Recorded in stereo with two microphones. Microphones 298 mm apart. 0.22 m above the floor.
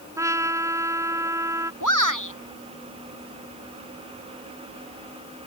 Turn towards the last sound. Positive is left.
turn(degrees=75)  # may be behind; listen again after turning